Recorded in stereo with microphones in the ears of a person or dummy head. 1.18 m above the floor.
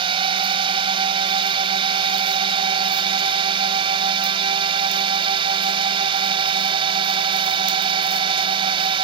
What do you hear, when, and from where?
0.0 s a drone: 30° right (ahead or behind)